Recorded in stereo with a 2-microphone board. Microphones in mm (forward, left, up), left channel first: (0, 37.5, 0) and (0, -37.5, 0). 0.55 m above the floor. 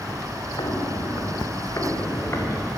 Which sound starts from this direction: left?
Footsteps, at 0.6 s.